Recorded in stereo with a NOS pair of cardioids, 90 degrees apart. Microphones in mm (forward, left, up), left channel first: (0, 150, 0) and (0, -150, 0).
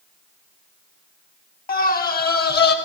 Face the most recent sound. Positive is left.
turn(degrees=35)